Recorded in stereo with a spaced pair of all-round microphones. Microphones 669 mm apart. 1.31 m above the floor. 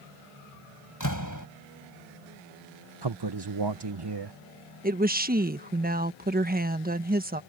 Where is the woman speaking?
15° right (ahead or behind).